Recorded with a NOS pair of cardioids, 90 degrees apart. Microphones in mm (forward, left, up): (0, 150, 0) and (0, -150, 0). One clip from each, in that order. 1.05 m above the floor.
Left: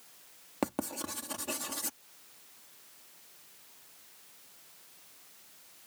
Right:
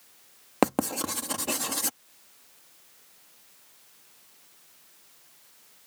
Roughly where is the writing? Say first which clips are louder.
Right 10 dB; ahead right.